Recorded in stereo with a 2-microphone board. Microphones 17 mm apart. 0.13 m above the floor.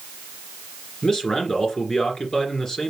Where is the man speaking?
35° left (ahead or behind), 1.9 m.